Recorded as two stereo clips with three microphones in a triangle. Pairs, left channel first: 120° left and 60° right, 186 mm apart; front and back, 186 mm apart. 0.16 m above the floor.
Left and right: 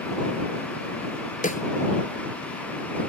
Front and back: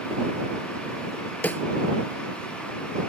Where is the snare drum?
80° left.